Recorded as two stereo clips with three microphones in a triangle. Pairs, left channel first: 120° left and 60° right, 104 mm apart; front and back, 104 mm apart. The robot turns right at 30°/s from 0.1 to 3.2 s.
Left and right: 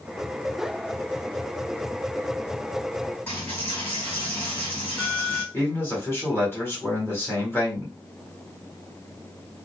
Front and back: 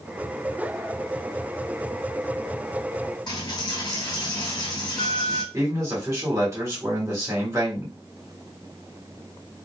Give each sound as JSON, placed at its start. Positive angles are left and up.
{"t": 3.3, "sound": "a dropped coin", "azimuth_deg": 45, "distance_m": 1.8}
{"t": 5.5, "sound": "a man speaking", "azimuth_deg": 165, "distance_m": 1.4}